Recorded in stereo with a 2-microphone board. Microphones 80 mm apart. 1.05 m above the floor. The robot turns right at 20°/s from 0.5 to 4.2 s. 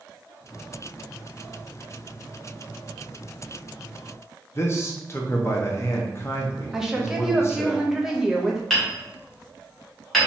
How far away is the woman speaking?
About 0.7 m.